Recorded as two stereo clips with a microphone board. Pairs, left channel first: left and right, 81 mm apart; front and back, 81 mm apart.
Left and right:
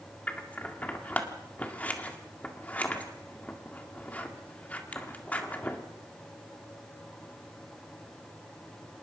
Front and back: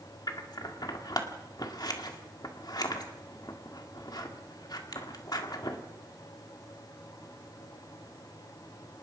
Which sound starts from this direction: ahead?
Scissors, at 0.3 s.